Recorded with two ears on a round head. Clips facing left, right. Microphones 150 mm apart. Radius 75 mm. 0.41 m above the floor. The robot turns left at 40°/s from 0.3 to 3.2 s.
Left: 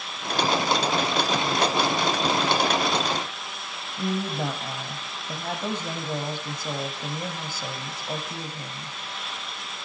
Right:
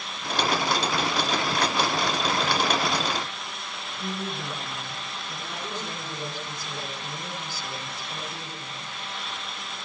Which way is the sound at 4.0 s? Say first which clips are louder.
Left 6 dB; 50° left (ahead or behind).